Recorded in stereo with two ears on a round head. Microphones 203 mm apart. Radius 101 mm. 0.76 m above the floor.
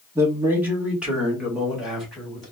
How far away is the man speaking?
About 1.5 m.